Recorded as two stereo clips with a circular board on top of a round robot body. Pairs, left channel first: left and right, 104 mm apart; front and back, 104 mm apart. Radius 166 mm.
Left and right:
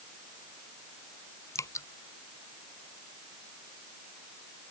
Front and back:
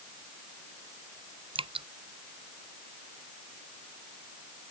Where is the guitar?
No guitar in this recording.